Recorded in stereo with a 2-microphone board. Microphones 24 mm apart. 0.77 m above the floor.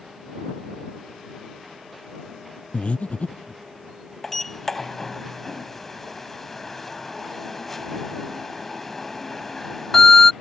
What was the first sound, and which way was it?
Breathing, 60° left (ahead or behind).